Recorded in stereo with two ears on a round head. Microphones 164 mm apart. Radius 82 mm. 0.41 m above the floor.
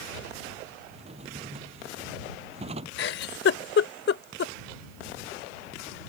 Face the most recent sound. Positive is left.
turn(degrees=60)  # may be behind; listen again after turning